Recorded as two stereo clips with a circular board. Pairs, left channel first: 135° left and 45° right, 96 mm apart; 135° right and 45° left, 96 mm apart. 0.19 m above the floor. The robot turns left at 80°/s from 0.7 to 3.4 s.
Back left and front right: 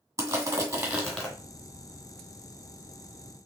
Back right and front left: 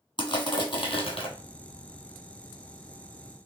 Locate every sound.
0.2 s crushing: 100° right, 1.6 m; by 1.3 s 150° right, 1.6 m